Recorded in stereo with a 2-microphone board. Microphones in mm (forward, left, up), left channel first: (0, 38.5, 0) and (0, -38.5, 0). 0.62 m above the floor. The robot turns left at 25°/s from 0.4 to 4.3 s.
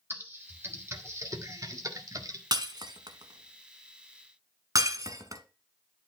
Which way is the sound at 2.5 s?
70° right (ahead or behind).